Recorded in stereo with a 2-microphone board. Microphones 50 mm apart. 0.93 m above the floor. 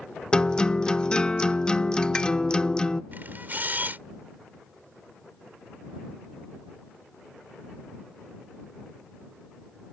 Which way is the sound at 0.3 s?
20° left (ahead or behind).